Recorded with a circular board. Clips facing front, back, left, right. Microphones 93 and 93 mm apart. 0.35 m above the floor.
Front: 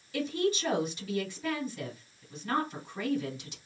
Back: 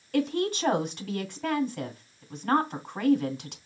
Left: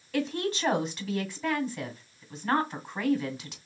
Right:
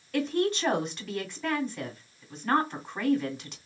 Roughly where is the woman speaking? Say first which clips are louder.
Back 3 dB, right 3 dB; behind.